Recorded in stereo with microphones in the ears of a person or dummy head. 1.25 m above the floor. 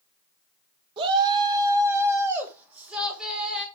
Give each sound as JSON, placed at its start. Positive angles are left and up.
{"t": 1.0, "sound": "a shout", "side_deg": -30, "distance_m": 1.5}